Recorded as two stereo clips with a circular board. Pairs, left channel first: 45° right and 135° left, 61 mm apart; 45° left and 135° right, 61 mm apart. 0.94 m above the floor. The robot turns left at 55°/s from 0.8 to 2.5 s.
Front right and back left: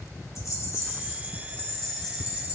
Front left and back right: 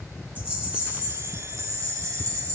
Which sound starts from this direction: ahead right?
A rattle, at 0.3 s.